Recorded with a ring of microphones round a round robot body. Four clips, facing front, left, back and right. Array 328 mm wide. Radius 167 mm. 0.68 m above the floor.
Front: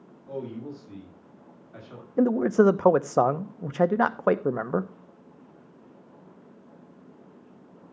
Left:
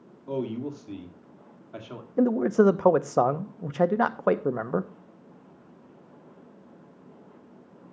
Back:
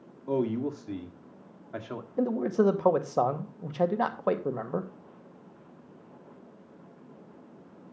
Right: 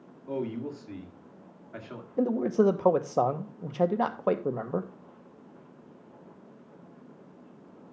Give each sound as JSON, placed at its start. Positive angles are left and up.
{"t": 0.3, "sound": "a man speaking", "azimuth_deg": 165, "distance_m": 2.0}
{"t": 2.2, "sound": "a man speaking", "azimuth_deg": 30, "distance_m": 0.8}